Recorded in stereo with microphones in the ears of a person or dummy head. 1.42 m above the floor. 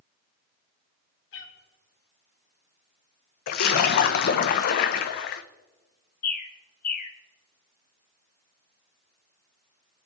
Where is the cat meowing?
70° left (ahead or behind), 2 m.